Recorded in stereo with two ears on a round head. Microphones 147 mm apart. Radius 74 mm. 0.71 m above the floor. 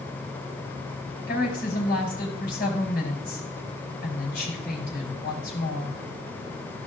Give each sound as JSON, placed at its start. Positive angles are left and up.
{"t": 1.3, "sound": "a woman speaking", "side_deg": 60, "distance_m": 4.5}